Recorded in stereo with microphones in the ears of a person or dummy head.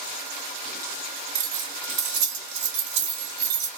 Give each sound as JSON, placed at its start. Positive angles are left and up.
{"t": 1.4, "sound": "keys jangling", "side_deg": -65, "distance_m": 2.0}